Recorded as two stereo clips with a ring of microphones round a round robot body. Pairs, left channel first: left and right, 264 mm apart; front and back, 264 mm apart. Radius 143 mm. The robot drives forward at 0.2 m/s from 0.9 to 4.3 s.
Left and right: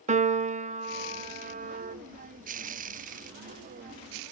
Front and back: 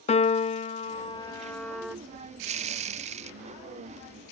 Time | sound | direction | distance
0.1 | a piano | 50° right | 0.5 m